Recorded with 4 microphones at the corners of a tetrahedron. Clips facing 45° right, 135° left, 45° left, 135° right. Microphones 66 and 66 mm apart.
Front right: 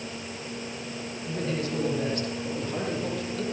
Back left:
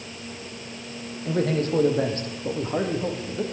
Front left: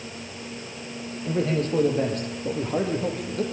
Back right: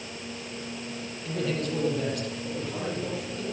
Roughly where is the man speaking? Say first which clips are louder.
Back left 7 dB, front left 5 dB; left.